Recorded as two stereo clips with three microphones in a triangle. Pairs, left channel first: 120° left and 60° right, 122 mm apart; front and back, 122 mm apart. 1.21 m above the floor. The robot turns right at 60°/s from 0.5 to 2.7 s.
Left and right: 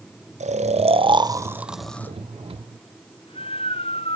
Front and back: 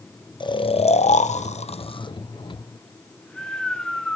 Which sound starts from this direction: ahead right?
Snoring, at 0.4 s.